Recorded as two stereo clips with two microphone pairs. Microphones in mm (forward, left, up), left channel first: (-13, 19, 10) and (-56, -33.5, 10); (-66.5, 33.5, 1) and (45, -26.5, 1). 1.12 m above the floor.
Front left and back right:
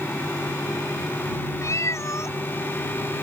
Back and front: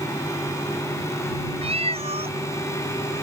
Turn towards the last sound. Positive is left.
turn(degrees=5)